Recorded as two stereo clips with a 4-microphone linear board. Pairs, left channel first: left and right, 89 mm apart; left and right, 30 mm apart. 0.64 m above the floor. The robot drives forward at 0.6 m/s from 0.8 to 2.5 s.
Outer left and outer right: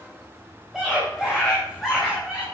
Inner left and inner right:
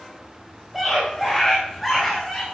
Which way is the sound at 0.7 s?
Centre (ahead or behind).